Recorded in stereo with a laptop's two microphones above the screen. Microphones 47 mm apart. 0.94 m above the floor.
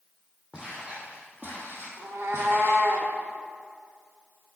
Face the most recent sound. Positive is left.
turn(degrees=-65)  # may be behind; listen again after turning